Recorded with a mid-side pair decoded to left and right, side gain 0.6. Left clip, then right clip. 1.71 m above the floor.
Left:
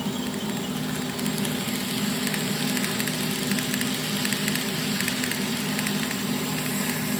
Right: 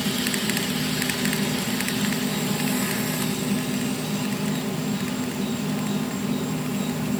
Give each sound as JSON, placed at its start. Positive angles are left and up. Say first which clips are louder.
{"t": 0.0, "sound": "an insect", "louder": "right 5 dB", "azimuth_deg": -10}